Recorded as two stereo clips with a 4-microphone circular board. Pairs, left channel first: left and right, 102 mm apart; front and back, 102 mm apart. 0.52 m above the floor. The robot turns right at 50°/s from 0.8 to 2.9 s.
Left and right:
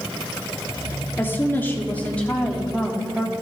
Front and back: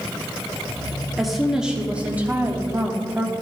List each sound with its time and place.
1.2 s a woman speaking: 90° left, 1.1 m; by 3.3 s 175° left, 1.1 m